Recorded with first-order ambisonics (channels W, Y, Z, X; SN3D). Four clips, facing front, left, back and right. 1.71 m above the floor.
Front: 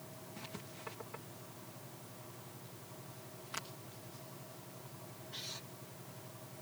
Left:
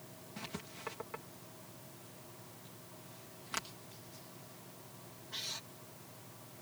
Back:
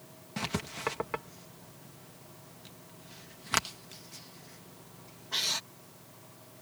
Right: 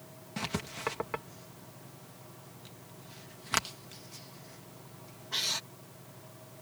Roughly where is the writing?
Behind right.